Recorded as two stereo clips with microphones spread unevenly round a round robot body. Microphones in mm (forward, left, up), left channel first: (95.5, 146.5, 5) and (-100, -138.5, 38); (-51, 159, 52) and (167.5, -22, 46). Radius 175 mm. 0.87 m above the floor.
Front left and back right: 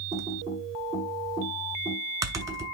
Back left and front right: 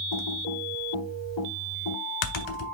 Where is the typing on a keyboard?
155° left, 0.8 m.